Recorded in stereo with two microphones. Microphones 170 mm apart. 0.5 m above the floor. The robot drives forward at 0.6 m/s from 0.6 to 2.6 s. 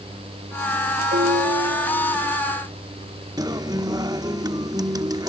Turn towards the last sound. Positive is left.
turn(degrees=-25)  # may be behind; listen again after turning